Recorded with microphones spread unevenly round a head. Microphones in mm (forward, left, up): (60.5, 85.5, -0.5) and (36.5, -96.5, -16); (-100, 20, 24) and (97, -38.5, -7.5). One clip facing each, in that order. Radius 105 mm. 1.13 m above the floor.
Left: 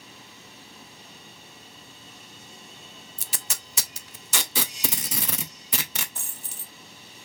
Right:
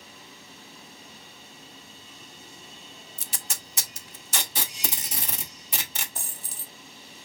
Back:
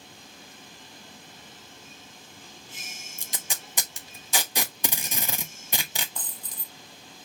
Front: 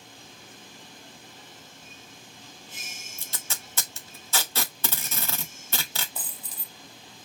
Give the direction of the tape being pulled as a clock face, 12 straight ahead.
9 o'clock.